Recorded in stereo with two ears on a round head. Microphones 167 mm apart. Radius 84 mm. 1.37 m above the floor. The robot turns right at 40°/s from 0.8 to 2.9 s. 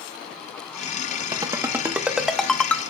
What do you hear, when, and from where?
1.3 s a ringtone: 20° right (ahead or behind), 0.8 m; by 2.8 s 10° left (ahead or behind), 0.8 m